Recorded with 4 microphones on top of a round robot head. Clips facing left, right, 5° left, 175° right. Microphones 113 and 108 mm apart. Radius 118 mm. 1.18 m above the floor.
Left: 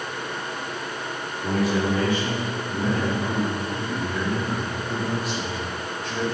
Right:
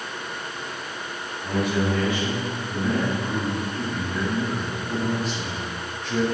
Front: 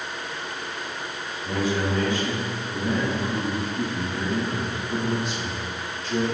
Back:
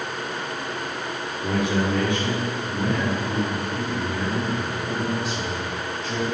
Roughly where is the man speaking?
Behind left.